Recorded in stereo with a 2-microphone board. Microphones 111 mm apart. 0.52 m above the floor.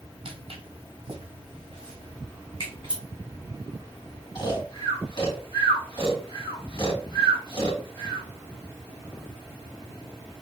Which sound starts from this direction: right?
Footsteps, at 0.2 s.